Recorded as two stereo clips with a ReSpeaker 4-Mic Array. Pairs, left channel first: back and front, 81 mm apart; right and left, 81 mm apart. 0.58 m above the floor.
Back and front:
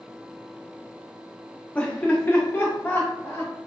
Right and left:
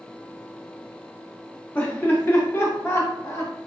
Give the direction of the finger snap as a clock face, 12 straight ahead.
No finger snap in this recording.